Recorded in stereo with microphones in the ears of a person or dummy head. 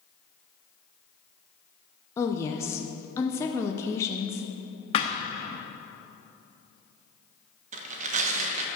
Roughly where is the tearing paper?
Right.